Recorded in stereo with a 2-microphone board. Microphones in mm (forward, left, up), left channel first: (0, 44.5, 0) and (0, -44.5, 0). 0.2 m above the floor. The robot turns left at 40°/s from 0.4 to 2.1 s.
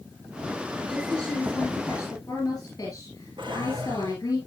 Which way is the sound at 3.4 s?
75° right (ahead or behind).